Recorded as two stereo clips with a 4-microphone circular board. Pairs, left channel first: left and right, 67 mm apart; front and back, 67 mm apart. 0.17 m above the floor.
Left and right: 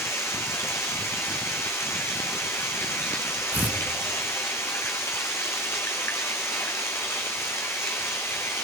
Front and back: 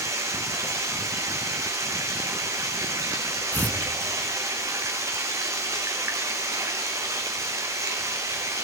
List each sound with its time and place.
0.0 s running water: 140° left, 3.5 m
3.5 s tearing paper: 50° right, 2 m